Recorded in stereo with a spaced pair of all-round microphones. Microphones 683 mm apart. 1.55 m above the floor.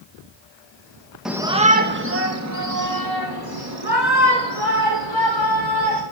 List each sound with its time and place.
1.2 s a shout: centre (ahead or behind), 1.2 m; by 6.0 s 40° right (ahead or behind), 4.5 m